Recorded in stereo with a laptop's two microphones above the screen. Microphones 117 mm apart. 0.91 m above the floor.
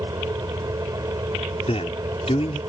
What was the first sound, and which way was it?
A fan, 30° right (ahead or behind).